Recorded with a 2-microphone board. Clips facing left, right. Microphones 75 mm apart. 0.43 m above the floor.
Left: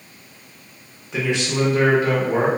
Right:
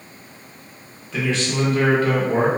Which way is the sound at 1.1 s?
20° left (ahead or behind).